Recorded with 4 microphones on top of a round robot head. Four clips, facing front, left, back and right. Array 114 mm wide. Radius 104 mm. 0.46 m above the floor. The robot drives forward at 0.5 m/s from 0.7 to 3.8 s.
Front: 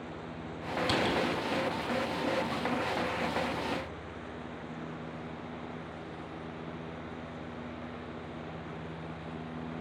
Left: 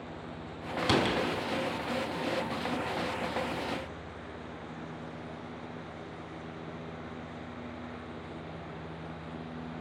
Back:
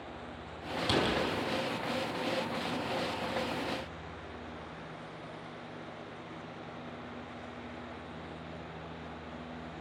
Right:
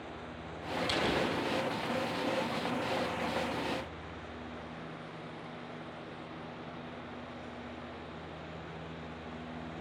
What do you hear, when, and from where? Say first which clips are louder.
0.8 s a door slam: left 5 dB, even; 85° left, 4 m